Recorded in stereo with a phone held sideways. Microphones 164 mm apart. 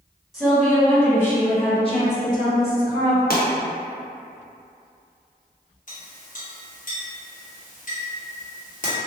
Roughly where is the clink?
Left.